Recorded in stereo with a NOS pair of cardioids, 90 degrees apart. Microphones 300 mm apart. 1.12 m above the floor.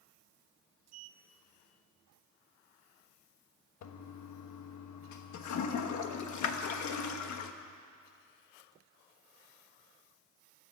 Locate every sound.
0.9 s a sliding door: 60° right, 0.7 m
3.8 s a toilet flushing: 70° left, 1.2 m